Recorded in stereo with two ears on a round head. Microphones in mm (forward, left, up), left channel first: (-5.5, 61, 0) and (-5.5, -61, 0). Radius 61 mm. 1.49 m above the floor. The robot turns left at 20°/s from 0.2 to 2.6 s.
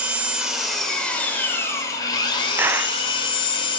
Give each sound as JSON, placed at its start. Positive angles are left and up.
{"t": 0.0, "sound": "an engine running", "azimuth_deg": -170, "distance_m": 5.5}
{"t": 2.6, "sound": "a clap", "side_deg": -15, "distance_m": 0.6}